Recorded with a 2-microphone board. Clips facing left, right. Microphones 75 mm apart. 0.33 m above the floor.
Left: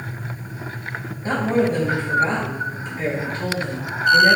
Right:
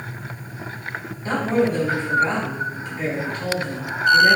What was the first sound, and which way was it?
A woman speaking, 35° left (ahead or behind).